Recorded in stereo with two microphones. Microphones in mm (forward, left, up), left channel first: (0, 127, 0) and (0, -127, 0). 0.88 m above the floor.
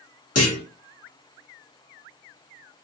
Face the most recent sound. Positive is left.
turn(degrees=75)  # may be behind; listen again after turning